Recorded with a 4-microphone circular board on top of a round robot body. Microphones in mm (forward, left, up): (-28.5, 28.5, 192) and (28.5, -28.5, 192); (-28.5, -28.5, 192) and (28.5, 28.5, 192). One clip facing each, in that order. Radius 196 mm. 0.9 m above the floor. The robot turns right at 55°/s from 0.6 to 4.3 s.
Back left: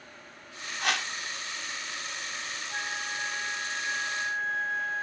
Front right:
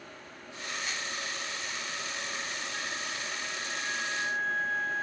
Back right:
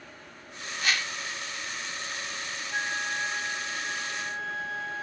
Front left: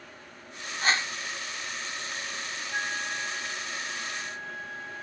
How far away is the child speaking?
No child speaking in this recording.